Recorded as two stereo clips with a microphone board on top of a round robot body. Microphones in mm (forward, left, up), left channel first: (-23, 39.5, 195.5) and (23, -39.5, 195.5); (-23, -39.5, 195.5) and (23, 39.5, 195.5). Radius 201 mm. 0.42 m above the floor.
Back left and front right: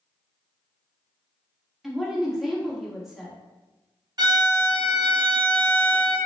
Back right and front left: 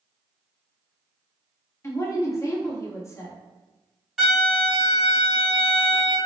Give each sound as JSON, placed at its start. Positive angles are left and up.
{"t": 1.8, "sound": "a woman speaking", "azimuth_deg": -140, "distance_m": 1.4}
{"t": 4.2, "sound": "a violin", "azimuth_deg": -25, "distance_m": 1.3}